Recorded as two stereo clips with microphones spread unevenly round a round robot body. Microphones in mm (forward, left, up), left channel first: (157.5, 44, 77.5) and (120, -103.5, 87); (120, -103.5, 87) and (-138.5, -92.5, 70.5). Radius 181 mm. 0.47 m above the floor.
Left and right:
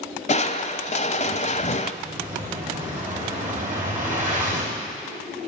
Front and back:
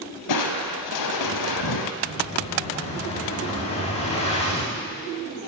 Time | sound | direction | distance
0.3 | crushing | 25° left | 0.8 m
2.0 | an explosion | 70° right | 4.5 m